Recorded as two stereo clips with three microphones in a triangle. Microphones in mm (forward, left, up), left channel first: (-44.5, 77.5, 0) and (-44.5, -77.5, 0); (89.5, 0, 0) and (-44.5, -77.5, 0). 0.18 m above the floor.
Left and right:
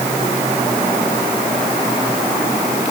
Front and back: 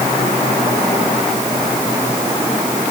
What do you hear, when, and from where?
Only background noise.